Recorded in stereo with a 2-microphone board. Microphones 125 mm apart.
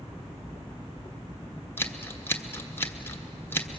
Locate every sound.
1.8 s scissors: 20° left (ahead or behind), 1.2 m